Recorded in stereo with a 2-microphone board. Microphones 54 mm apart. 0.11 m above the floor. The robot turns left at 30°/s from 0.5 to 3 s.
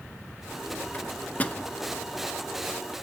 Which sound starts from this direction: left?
A microwave, at 0.9 s.